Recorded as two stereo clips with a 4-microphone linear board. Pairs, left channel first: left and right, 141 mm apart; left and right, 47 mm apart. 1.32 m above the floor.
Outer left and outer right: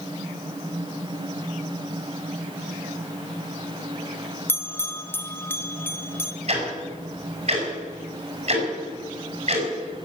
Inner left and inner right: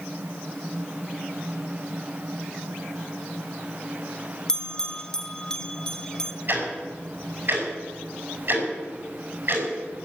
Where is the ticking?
50° right (ahead or behind), 6 m.